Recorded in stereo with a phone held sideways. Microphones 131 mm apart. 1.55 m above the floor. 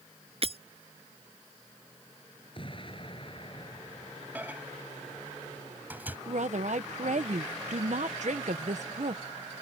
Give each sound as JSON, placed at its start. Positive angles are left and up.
{"t": 0.4, "sound": "breaking glass", "side_deg": -50}
{"t": 2.5, "sound": "an explosion", "side_deg": 40}
{"t": 4.3, "sound": "a microwave", "side_deg": -15}
{"t": 6.3, "sound": "a woman speaking", "side_deg": -65}